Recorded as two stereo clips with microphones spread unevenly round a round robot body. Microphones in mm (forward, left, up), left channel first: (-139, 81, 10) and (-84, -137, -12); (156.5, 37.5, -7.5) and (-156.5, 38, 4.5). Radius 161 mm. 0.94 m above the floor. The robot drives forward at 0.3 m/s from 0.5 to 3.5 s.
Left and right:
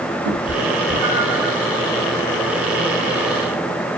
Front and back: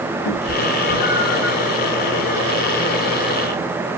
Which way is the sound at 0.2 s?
35° right.